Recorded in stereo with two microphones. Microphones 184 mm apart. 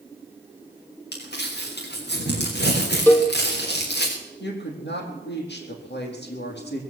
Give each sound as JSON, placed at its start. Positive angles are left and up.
{"t": 1.1, "sound": "crumpling", "side_deg": 65, "distance_m": 5.0}
{"t": 3.1, "sound": "a cowbell", "side_deg": 10, "distance_m": 2.5}
{"t": 4.4, "sound": "a woman speaking", "side_deg": 70, "distance_m": 4.0}